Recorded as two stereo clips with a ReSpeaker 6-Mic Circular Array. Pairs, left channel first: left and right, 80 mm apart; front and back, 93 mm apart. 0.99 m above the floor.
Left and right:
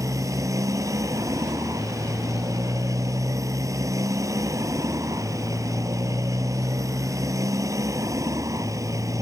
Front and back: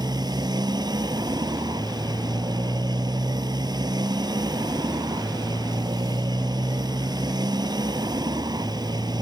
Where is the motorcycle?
140° right.